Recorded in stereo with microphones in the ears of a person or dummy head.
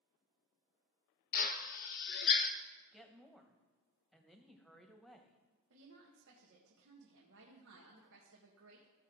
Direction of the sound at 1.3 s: 45° left (ahead or behind).